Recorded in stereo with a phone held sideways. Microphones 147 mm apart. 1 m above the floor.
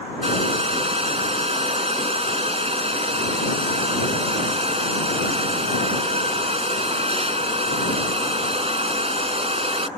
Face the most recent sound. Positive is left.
turn(degrees=-45)  # may be behind; listen again after turning